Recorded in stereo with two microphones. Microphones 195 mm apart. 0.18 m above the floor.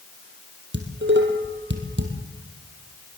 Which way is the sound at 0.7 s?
70° right (ahead or behind).